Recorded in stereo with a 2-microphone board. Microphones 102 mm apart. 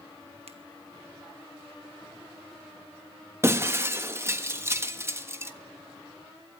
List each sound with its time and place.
0.5 s a finger snap: 80° right, 1.8 m
3.4 s breaking glass: 25° right (ahead or behind), 1.3 m